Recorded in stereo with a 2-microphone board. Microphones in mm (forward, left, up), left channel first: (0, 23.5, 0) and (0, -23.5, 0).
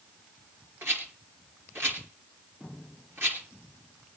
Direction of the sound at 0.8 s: 55° right (ahead or behind).